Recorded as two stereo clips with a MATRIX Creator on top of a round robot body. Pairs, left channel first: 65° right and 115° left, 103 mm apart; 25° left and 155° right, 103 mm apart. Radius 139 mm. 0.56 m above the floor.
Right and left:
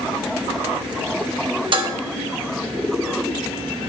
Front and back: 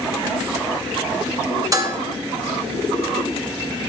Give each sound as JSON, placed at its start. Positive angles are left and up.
{"t": 1.7, "sound": "dishes clattering", "azimuth_deg": 145, "distance_m": 1.3}